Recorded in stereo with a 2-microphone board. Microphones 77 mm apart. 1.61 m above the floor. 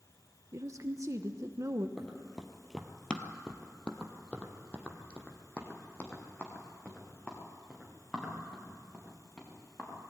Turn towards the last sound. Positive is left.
turn(degrees=15)  # may be behind; listen again after turning